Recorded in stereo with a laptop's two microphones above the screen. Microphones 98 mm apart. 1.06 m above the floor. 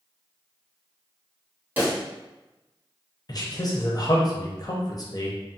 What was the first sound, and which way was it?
A pop, 20° right (ahead or behind).